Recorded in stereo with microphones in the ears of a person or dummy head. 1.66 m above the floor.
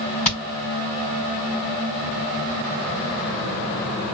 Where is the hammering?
45° left (ahead or behind), 4 m.